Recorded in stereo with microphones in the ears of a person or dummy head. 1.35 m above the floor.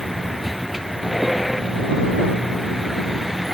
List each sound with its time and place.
0.0 s a vehicle: centre (ahead or behind)